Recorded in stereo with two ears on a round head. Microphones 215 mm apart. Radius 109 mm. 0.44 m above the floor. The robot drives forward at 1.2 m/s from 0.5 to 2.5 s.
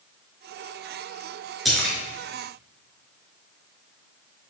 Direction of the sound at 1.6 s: Centre (ahead or behind).